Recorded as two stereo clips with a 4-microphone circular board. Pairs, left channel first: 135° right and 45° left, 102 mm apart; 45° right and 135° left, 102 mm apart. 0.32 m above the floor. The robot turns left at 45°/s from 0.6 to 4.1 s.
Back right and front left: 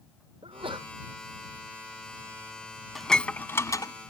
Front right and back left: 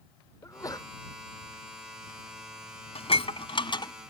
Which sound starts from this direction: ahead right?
Dishes clattering, at 3.0 s.